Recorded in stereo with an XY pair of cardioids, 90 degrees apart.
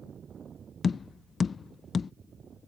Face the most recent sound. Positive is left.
turn(degrees=45)